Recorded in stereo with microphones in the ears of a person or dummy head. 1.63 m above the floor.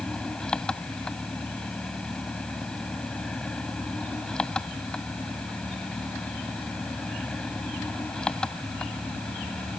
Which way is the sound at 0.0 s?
10° left (ahead or behind).